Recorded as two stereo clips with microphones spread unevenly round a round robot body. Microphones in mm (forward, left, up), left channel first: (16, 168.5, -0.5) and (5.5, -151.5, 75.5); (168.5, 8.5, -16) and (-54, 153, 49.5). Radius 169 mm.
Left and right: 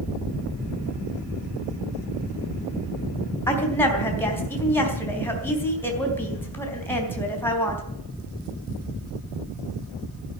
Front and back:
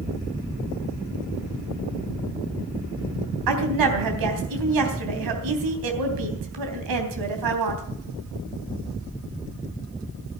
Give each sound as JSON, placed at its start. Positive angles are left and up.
{"t": 3.5, "sound": "a woman speaking", "azimuth_deg": 170, "distance_m": 3.5}